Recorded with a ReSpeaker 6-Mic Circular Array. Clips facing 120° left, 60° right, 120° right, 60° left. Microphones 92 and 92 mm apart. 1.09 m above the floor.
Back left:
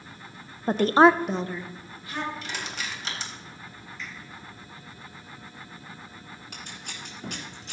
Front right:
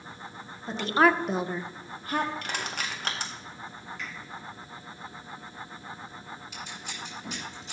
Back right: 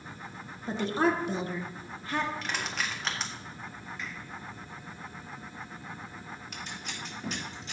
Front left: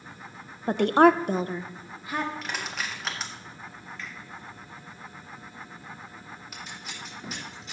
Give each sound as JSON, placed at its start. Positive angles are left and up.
{"t": 0.7, "sound": "a woman speaking", "azimuth_deg": 90, "distance_m": 0.6}
{"t": 2.4, "sound": "crushing", "azimuth_deg": -25, "distance_m": 1.6}
{"t": 4.0, "sound": "a finger snap", "azimuth_deg": -45, "distance_m": 5.0}
{"t": 6.5, "sound": "scissors", "azimuth_deg": 145, "distance_m": 3.5}